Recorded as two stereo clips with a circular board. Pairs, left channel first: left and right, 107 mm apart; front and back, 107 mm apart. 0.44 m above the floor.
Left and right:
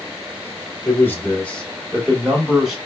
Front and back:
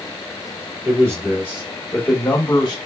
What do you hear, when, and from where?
0.8 s a man speaking: 145° left, 1.2 m; by 2.8 s 20° right, 1.1 m